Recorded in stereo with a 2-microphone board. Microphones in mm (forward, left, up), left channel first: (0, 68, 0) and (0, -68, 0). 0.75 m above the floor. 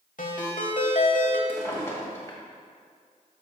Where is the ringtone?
70° left (ahead or behind), 1.2 m.